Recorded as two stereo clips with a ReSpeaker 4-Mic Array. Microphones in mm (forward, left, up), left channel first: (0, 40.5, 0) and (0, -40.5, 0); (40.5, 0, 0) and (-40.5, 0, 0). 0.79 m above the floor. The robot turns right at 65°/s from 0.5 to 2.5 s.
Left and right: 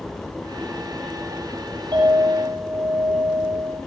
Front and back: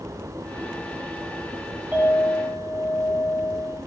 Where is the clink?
110° right, 7.5 m; by 3.8 s 70° right, 7.5 m.